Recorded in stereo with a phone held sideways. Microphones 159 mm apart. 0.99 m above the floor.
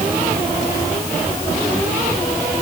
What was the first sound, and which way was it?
Only background noise.